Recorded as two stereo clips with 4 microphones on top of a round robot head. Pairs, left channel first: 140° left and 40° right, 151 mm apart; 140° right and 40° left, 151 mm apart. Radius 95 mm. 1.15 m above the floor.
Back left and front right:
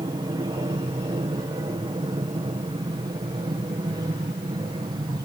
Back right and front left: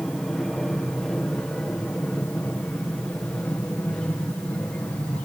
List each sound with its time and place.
0.0 s an aircraft: 60° right; by 5.3 s 70° right